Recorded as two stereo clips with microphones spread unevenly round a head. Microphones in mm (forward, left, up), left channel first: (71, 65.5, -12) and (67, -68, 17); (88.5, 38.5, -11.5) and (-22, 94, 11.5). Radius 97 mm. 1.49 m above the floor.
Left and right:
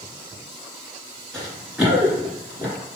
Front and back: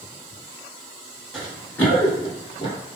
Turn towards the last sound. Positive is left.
turn(degrees=-60)